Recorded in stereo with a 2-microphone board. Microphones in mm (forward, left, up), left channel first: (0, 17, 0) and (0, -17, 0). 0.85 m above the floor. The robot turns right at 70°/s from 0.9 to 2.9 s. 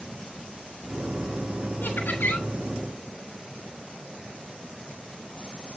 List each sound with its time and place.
1.8 s laughter: 80° left, 4 m; by 2.5 s 125° left, 4 m